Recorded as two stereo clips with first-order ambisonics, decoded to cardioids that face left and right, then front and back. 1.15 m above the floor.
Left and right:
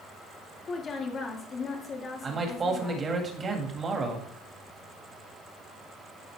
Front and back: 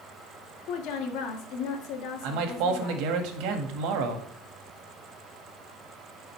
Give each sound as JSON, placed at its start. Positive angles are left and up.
{"t": 0.7, "sound": "a woman speaking", "azimuth_deg": 25, "distance_m": 1.7}
{"t": 2.2, "sound": "a man speaking", "azimuth_deg": -160, "distance_m": 1.8}